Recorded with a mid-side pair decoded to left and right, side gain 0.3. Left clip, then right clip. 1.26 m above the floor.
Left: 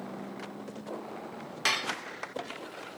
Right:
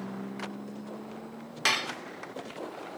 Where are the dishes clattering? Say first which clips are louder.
Right 1 dB; 20° right, 0.7 m.